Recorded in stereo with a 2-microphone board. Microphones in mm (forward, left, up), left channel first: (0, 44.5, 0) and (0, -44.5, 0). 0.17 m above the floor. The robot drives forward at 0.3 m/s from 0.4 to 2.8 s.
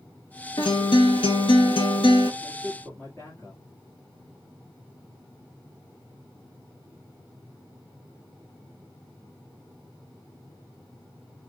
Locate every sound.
0.6 s a guitar: 70° left (ahead or behind), 0.9 m; by 2.3 s 65° left (ahead or behind), 0.9 m
2.4 s a man speaking: 30° left (ahead or behind), 3 m; by 3.6 s 25° left (ahead or behind), 3 m